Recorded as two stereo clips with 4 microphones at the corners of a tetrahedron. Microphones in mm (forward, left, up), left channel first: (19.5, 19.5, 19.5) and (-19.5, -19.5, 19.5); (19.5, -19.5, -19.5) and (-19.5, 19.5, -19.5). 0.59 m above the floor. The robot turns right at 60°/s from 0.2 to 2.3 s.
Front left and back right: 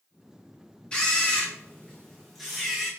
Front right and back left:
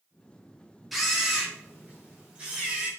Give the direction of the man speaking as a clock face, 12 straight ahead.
No man speaking in this recording.